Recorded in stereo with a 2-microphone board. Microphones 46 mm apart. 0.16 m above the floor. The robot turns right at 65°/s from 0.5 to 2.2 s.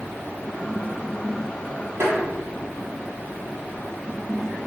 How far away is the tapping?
About 0.9 m.